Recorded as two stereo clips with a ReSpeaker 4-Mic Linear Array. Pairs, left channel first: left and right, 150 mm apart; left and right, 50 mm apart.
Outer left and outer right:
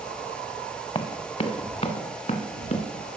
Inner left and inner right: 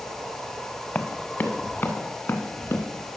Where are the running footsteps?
35° left (ahead or behind), 1.2 m; by 2.8 s 55° left (ahead or behind), 2.5 m.